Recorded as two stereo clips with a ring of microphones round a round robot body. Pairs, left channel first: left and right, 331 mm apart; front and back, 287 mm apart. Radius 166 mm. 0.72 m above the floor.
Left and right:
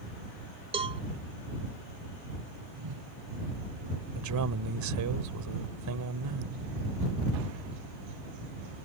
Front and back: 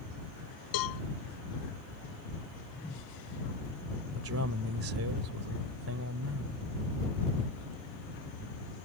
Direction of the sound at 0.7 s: 15° right.